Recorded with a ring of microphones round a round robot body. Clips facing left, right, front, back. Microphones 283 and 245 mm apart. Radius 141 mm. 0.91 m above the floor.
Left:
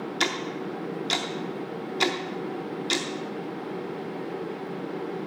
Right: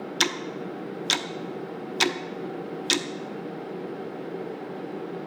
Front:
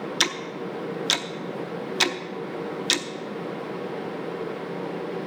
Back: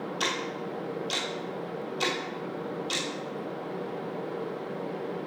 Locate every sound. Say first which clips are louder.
0.2 s ticking: right 1 dB, front 2 dB; 30° right, 0.7 m